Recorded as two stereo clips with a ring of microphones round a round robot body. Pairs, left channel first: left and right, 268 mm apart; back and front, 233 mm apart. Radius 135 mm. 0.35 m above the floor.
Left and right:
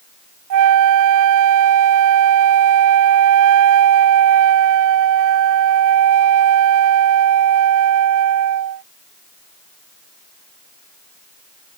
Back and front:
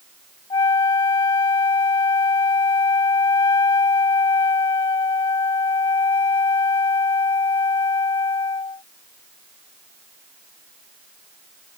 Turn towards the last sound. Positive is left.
turn(degrees=-105)